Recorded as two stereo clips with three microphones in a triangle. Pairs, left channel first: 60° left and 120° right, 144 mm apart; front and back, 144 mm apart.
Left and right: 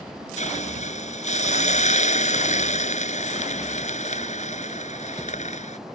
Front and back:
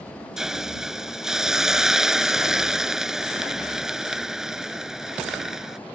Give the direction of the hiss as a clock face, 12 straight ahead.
9 o'clock.